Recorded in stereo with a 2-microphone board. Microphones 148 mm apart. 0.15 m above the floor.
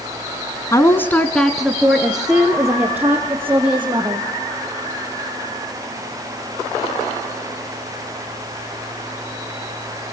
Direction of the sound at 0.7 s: 20° left (ahead or behind).